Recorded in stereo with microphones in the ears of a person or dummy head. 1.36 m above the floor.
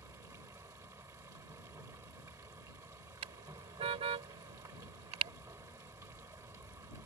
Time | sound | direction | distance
0.0 | running water | 10° right (ahead or behind) | ?
3.2 | a car horn | 30° right (ahead or behind) | ?